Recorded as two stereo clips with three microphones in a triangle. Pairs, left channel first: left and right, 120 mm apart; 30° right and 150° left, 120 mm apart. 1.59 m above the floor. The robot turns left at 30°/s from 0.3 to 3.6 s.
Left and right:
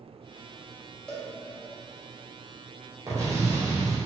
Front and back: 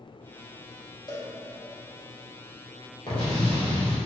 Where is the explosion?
35° right, 1.7 m; by 4.0 s 50° right, 1.7 m.